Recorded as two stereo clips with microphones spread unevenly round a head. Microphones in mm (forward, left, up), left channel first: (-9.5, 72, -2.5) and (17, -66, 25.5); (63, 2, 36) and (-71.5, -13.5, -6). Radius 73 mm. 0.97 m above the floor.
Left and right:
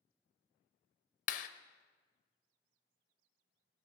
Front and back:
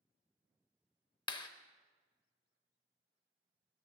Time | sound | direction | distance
1.3 | a clap | 70° left | 0.8 m